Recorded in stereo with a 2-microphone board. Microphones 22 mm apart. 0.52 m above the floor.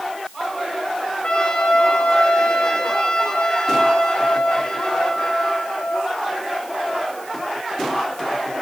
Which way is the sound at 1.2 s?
50° left (ahead or behind).